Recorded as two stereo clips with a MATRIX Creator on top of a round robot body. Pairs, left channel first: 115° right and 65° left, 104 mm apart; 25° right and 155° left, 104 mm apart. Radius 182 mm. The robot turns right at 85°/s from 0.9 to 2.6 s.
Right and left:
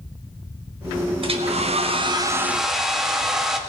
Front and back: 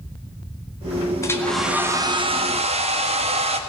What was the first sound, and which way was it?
A hair dryer, 35° left.